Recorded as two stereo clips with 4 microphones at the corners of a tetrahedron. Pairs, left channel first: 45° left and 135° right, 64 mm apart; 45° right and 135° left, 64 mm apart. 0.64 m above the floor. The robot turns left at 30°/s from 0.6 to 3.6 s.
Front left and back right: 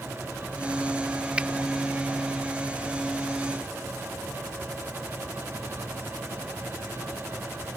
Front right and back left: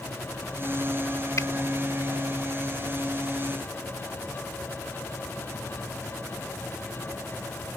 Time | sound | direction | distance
1.4 | a finger snap | 65° right | ?